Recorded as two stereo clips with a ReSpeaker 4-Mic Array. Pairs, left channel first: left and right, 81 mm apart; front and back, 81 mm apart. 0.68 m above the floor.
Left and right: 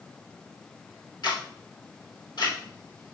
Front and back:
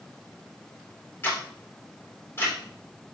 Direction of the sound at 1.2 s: 60° left.